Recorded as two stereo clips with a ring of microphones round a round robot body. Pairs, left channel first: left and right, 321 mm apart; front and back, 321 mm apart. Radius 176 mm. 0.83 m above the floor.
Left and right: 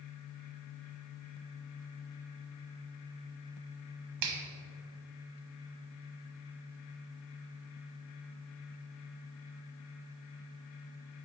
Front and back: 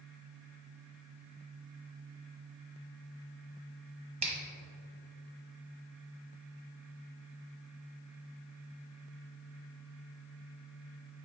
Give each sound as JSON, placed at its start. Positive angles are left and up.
{"t": 4.2, "sound": "a finger snap", "azimuth_deg": -110, "distance_m": 1.1}